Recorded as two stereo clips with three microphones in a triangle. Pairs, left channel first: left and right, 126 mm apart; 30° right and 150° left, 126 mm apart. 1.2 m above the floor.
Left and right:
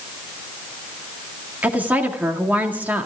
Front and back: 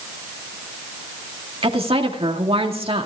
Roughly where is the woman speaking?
Behind.